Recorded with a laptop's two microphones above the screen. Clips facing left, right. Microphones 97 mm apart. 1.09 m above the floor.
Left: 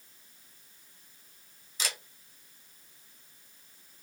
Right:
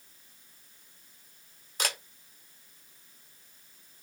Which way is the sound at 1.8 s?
55° right (ahead or behind).